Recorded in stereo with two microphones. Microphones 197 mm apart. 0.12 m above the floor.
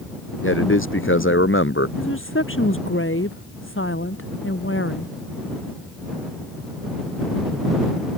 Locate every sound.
0.4 s a man speaking: 75° left (ahead or behind)
2.0 s a woman speaking: 75° left (ahead or behind)